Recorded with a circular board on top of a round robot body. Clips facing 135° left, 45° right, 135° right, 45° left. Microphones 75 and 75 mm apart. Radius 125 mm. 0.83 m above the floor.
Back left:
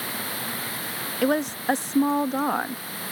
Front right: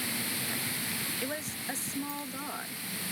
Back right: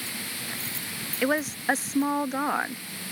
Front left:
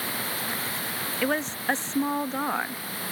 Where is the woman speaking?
140° left.